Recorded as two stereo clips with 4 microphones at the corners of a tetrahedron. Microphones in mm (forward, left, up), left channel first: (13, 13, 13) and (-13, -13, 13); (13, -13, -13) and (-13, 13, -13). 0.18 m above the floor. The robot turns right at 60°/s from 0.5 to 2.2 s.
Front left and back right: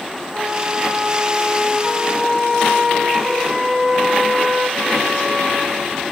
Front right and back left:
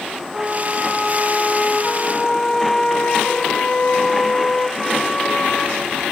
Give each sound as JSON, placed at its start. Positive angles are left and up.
{"t": 0.3, "sound": "a flute", "azimuth_deg": 175, "distance_m": 1.6}